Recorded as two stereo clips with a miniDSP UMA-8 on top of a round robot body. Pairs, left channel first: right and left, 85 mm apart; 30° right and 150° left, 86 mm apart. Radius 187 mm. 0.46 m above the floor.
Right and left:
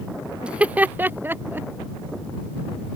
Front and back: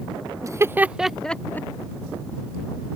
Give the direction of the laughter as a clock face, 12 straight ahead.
7 o'clock.